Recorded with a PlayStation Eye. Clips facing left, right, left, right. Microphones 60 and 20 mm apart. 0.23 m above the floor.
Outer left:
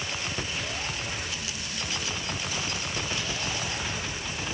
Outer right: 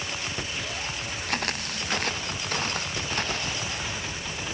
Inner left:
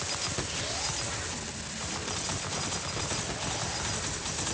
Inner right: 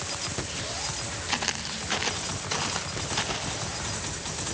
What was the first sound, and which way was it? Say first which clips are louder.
Footsteps: outer right 6 dB, inner right 8 dB; 60° right (ahead or behind).